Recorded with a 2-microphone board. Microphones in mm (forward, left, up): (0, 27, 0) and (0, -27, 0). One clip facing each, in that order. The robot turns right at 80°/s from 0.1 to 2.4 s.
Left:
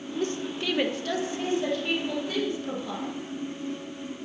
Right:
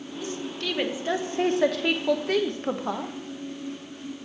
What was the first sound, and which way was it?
A woman speaking, 50° left (ahead or behind).